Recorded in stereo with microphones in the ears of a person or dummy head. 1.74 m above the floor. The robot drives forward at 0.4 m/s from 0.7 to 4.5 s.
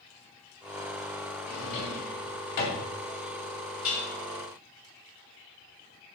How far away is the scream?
I don't hear a scream.